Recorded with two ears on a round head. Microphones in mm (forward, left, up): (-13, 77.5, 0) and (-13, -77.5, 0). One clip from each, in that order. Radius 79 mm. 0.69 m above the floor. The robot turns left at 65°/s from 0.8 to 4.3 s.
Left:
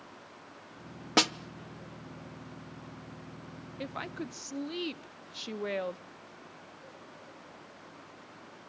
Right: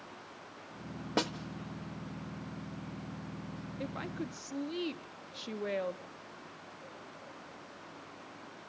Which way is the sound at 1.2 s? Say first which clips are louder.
Left 8 dB; 50° left (ahead or behind).